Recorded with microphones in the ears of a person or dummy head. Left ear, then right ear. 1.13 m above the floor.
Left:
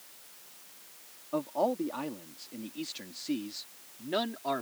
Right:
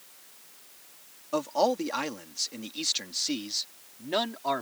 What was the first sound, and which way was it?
A man speaking, 75° right (ahead or behind).